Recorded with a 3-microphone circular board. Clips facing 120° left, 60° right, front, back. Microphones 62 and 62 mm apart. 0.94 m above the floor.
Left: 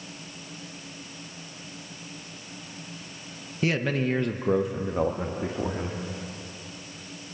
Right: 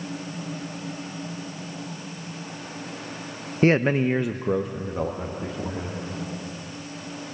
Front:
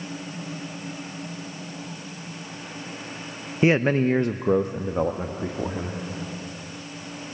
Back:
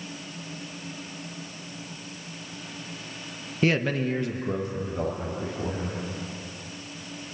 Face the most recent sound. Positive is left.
turn(degrees=50)